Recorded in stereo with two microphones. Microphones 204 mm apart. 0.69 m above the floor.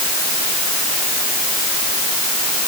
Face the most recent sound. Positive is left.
No sound to turn to.